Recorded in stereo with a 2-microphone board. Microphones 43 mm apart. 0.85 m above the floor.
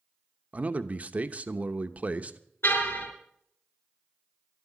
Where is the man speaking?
30° right (ahead or behind), 0.8 m.